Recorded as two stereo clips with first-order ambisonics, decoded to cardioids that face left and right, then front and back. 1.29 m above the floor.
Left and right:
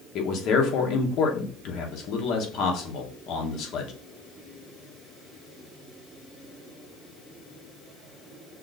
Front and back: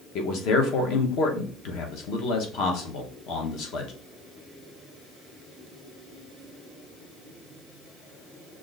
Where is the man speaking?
40° left, 0.9 m.